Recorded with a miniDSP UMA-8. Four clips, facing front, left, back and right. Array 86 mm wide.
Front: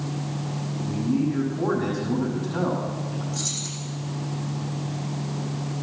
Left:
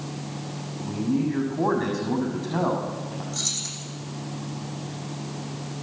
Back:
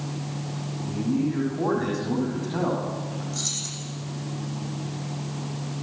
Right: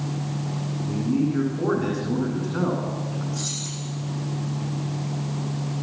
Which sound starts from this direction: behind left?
Keys jangling, at 3.3 s.